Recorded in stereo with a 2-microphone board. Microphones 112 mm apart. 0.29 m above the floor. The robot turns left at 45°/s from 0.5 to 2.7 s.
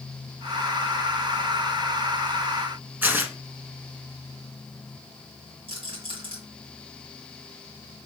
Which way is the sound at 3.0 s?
20° right (ahead or behind).